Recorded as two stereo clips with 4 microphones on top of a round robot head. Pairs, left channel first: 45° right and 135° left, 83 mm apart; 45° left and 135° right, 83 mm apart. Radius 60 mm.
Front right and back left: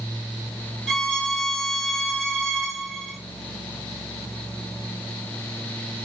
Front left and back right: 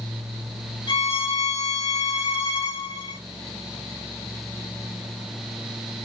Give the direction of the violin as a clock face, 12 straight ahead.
10 o'clock.